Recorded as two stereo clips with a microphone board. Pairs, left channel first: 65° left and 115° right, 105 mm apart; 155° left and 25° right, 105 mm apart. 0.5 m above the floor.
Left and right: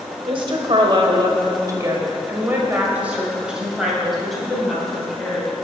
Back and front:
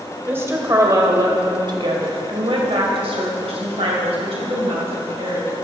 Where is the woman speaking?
90° right, 2 m; by 5.5 s 15° right, 3.5 m.